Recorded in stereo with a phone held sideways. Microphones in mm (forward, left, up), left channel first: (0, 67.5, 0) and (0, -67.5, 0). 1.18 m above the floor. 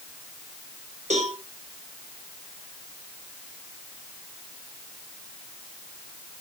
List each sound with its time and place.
1.1 s a cowbell: 60° right (ahead or behind), 3.5 m